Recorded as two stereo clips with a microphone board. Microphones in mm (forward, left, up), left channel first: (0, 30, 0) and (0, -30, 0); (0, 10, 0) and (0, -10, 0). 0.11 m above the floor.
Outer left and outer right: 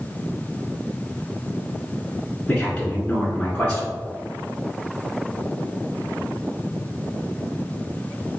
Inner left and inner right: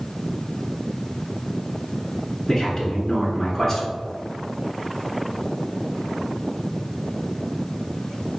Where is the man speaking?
20° left (ahead or behind), 1.2 m.